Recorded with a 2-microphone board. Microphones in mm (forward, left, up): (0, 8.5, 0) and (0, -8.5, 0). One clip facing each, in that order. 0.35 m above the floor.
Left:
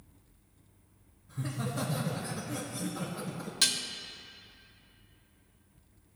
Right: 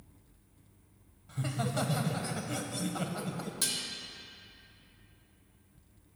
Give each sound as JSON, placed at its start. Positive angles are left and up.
{"t": 1.3, "sound": "laughter", "side_deg": -50, "distance_m": 1.5}
{"t": 3.6, "sound": "dishes clattering", "side_deg": 35, "distance_m": 0.6}